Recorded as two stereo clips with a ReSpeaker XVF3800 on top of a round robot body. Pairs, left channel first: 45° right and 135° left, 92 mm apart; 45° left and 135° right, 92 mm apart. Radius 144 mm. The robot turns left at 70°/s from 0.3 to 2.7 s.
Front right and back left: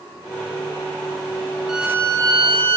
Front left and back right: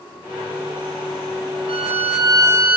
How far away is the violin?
About 1.2 m.